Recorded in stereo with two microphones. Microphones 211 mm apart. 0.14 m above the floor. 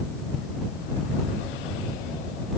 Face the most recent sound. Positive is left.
No sound to turn to.